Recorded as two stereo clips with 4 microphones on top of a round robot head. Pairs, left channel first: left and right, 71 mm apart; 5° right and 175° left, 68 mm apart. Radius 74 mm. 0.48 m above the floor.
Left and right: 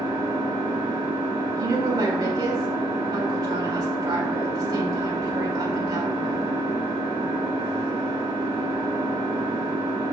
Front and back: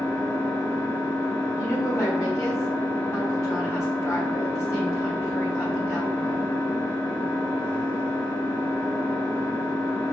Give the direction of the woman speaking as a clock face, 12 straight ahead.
2 o'clock.